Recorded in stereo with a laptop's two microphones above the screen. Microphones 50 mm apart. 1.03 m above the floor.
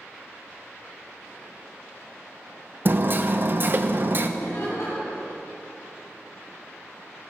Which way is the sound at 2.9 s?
40° right (ahead or behind).